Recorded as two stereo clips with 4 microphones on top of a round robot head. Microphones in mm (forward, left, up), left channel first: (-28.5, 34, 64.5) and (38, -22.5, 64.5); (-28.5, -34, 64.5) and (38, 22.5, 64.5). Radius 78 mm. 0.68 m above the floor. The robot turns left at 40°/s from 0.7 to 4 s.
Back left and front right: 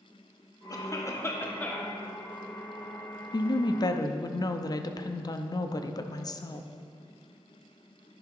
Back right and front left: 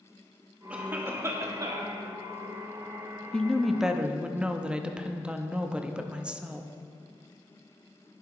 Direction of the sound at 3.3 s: 140° left.